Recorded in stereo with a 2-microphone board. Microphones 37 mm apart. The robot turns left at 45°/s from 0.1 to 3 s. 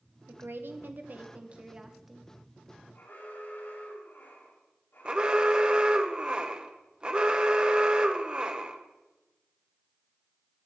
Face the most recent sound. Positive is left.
turn(degrees=-25)  # may be behind; listen again after turning